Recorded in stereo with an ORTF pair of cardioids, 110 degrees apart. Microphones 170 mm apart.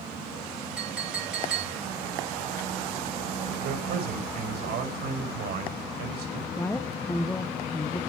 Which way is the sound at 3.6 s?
70° right.